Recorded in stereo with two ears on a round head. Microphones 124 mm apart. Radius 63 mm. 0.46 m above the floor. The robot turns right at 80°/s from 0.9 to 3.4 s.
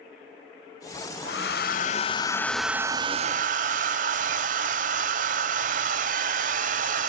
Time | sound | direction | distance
1.2 | a hair dryer | 70° left | 1.0 m